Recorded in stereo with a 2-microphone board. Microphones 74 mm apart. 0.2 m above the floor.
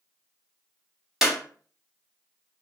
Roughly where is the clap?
Centre.